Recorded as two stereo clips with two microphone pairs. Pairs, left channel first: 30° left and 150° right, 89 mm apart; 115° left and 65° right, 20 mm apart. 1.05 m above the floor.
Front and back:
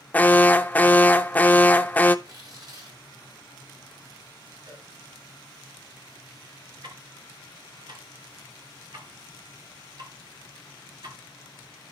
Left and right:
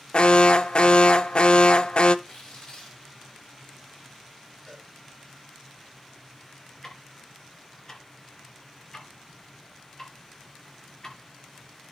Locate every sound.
0.1 s an alarm: 100° left, 0.6 m
2.2 s tearing paper: 165° left, 5 m
4.7 s a cowbell: 175° right, 9 m
6.8 s ticking: straight behind, 2.5 m